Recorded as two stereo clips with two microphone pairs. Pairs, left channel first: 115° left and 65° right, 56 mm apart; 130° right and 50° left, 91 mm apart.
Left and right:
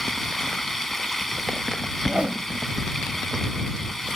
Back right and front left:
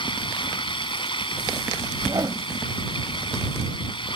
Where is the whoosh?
5° left.